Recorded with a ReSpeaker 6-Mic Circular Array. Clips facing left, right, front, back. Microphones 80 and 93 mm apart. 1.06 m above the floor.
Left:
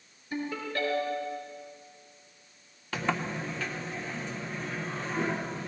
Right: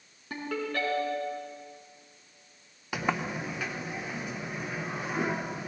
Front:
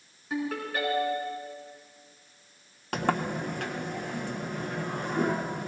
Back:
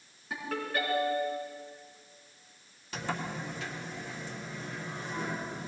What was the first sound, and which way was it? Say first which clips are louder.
A ringtone: right 1 dB, front 3 dB; 90° right.